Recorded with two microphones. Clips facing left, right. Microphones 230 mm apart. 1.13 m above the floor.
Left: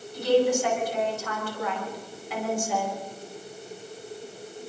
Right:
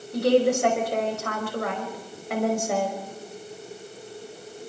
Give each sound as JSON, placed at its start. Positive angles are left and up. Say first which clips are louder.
{"t": 0.1, "sound": "a woman speaking", "louder": "right 2 dB", "side_deg": -70, "distance_m": 5.5}